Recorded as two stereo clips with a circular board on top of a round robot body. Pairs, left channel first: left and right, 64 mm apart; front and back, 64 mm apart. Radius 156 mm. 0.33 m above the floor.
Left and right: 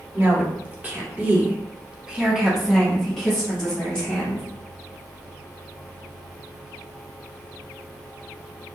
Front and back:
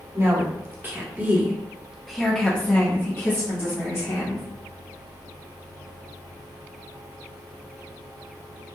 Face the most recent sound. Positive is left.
turn(degrees=20)